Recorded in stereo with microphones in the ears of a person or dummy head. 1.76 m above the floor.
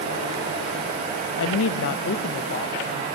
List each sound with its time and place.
1.4 s a woman speaking: 85° left, 0.5 m; by 3.1 s 30° left (ahead or behind), 1.1 m